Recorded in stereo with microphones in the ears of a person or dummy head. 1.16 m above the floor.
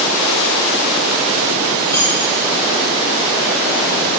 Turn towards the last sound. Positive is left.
turn(degrees=15)  # may be behind; listen again after turning